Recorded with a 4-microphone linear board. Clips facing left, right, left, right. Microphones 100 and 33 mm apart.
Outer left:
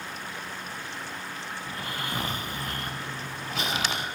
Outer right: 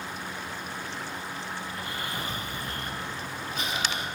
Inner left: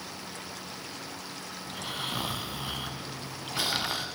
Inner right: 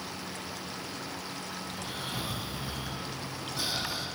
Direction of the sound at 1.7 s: 75° left (ahead or behind).